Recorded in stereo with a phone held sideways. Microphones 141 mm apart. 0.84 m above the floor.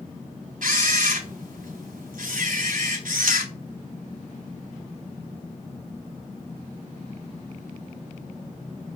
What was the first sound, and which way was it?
A camera shutter, 75° right (ahead or behind).